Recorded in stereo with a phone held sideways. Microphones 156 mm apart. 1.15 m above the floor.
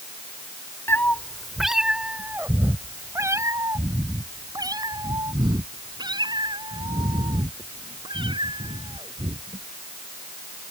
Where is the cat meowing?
15° left (ahead or behind); by 9.6 s 30° right (ahead or behind).